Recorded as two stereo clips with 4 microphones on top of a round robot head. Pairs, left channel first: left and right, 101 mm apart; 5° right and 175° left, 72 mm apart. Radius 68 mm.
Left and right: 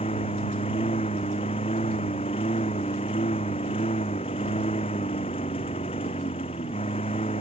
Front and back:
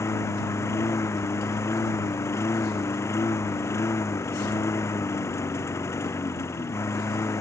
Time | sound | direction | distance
0.0 | a lawn mower | 45° left | ?